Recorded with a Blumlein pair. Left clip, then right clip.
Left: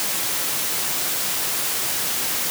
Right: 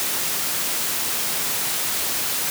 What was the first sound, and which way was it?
Only background noise.